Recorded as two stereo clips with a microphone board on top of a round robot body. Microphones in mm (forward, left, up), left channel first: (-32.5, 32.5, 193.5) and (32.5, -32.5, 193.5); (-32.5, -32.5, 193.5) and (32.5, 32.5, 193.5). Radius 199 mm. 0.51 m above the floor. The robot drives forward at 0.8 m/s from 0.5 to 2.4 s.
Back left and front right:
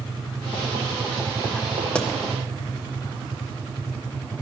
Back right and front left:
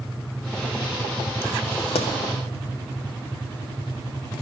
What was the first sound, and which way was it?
A pop, 145° right.